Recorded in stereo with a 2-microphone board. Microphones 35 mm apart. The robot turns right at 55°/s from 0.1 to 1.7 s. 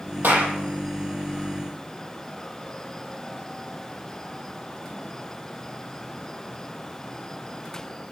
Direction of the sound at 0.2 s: 70° right (ahead or behind).